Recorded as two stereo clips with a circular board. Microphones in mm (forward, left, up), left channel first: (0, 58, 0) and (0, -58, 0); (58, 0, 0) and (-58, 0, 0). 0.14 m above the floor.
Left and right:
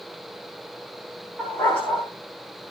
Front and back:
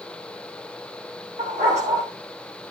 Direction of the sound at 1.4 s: 170° left.